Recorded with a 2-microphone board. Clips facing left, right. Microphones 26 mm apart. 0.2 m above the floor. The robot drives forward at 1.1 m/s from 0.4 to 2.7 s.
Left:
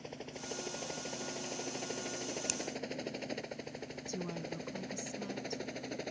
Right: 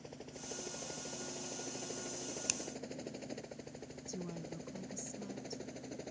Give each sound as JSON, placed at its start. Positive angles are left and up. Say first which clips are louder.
{"t": 0.0, "sound": "a helicopter", "louder": "left 4 dB", "side_deg": 35}
{"t": 2.5, "sound": "a finger snap", "louder": "right 1 dB", "side_deg": -10}
{"t": 4.1, "sound": "a woman speaking", "louder": "left 4 dB", "side_deg": 30}